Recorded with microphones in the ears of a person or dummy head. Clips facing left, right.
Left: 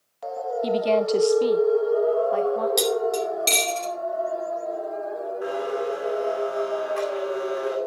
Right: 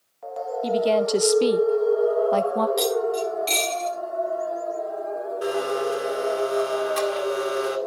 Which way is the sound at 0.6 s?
10° left (ahead or behind).